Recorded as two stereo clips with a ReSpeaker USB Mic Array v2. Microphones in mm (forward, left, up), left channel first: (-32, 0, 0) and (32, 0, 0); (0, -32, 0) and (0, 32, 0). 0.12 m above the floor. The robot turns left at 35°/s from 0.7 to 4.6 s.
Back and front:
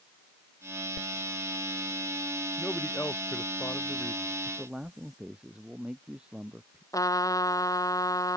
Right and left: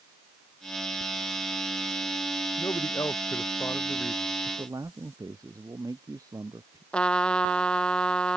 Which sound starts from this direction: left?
A man speaking, at 4.5 s.